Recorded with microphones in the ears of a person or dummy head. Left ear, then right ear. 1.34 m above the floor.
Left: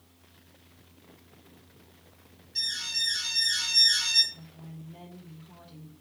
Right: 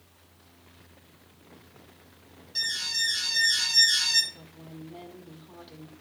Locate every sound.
2.5 s an alarm: 25° right (ahead or behind), 6.5 m
4.3 s a woman speaking: 40° right (ahead or behind), 4.5 m